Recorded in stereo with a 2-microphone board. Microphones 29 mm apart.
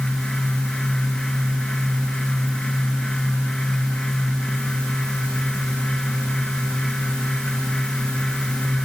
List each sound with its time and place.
Only background noise.